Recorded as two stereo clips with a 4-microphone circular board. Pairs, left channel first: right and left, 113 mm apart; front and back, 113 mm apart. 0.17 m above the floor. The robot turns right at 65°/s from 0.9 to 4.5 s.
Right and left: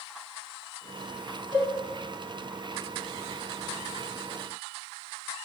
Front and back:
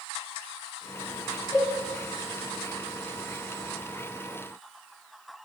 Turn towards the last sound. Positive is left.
turn(degrees=30)